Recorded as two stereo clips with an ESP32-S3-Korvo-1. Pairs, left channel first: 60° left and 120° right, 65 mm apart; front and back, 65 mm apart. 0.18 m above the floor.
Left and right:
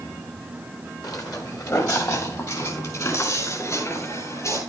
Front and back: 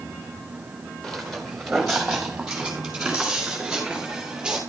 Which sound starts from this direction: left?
Footsteps, at 1.0 s.